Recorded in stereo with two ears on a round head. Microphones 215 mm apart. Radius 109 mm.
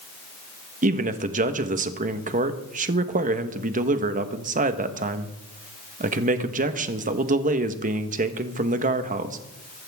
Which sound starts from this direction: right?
A man speaking, at 0.8 s.